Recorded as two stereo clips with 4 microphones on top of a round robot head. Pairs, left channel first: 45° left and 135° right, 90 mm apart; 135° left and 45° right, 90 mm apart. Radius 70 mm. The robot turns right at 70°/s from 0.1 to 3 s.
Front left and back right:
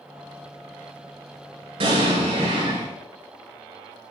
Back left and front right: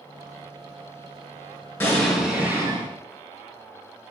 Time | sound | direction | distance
1.8 | an explosion | 155° right | 7 m